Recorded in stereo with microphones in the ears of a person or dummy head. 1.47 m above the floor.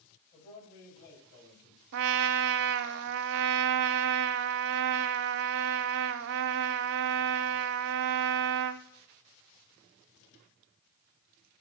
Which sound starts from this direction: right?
A trumpet, at 1.9 s.